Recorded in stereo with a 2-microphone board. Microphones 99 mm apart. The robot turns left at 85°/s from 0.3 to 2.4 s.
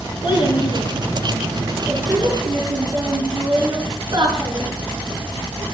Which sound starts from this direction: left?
A child speaking, at 0.2 s.